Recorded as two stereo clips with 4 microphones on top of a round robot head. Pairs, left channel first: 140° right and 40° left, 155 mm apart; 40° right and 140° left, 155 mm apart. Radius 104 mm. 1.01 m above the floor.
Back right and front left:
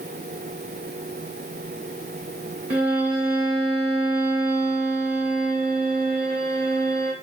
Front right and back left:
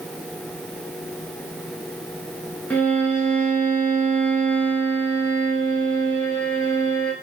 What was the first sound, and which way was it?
A violin, 40° left.